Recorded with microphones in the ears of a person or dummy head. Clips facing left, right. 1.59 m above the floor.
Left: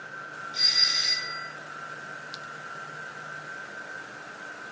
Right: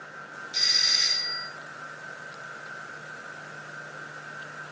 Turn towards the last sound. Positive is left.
turn(degrees=-70)  # may be behind; listen again after turning